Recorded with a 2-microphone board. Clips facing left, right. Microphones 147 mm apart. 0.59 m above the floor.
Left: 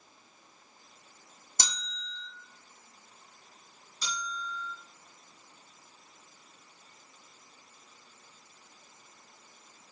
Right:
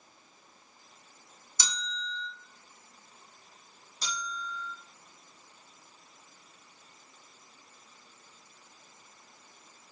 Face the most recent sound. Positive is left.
turn(degrees=-35)  # may be behind; listen again after turning